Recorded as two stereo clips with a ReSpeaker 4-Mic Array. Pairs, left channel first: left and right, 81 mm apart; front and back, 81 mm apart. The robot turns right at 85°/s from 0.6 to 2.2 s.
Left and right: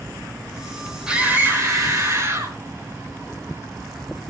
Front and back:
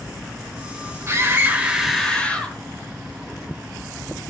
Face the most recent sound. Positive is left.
turn(degrees=-65)